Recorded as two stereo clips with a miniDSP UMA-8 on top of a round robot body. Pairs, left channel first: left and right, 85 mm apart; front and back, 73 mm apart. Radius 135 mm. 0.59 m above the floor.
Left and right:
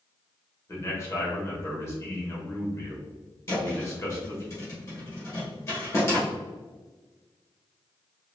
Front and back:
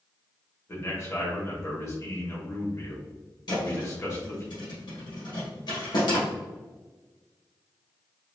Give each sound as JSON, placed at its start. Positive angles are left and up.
{"t": 0.7, "sound": "a man speaking", "azimuth_deg": 40, "distance_m": 1.7}
{"t": 3.5, "sound": "a thud", "azimuth_deg": 35, "distance_m": 1.4}